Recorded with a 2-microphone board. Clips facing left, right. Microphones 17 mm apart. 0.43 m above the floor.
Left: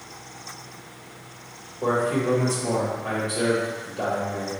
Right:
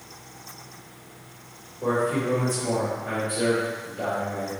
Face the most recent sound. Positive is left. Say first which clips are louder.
# left 1 dB
turn(degrees=35)  # may be behind; listen again after turning